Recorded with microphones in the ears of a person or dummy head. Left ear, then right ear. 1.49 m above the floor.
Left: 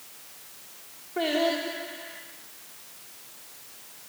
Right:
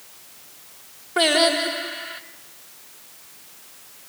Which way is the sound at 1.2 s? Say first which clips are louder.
Right 8 dB; 55° right (ahead or behind).